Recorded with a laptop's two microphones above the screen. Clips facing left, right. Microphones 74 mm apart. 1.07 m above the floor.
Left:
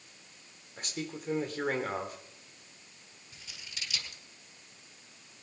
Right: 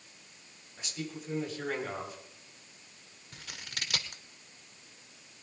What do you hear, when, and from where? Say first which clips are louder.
0.8 s a man speaking: left 1 dB; 55° left (ahead or behind), 4 m
3.3 s scissors: right 5 dB; 65° right (ahead or behind), 1.4 m